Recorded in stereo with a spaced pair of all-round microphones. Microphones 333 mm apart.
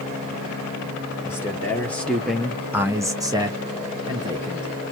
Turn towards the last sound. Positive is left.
turn(degrees=-15)  # may be behind; listen again after turning